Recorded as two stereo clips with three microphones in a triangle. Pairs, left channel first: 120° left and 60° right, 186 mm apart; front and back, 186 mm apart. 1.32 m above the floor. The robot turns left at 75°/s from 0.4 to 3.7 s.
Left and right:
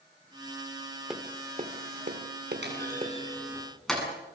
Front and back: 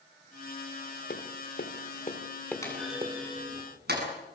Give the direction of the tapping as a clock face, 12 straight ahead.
11 o'clock.